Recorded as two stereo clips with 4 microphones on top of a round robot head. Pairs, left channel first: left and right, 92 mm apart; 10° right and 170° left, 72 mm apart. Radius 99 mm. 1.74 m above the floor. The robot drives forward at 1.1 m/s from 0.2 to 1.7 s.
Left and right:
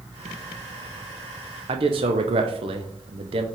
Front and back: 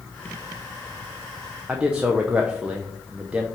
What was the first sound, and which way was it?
A man speaking, 110° right.